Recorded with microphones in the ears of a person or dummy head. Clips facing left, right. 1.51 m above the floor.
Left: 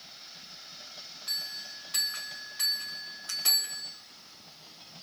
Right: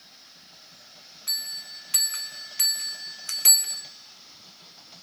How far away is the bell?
About 1.3 m.